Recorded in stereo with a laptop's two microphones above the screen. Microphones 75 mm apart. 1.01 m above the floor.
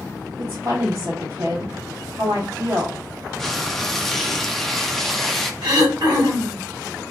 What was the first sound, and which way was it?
A woman speaking, 50° right (ahead or behind).